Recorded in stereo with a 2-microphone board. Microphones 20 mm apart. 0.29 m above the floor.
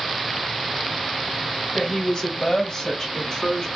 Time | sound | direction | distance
1.7 | a woman speaking | 30° left (ahead or behind) | 1.7 m